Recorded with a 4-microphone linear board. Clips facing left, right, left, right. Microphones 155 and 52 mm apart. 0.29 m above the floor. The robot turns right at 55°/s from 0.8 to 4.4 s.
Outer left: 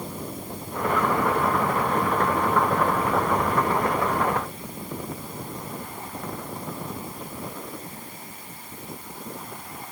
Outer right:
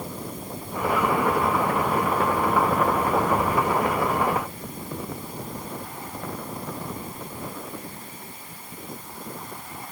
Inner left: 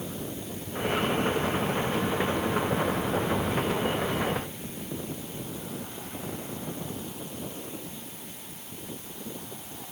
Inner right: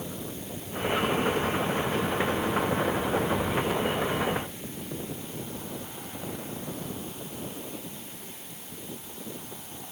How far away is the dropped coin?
I don't hear a dropped coin.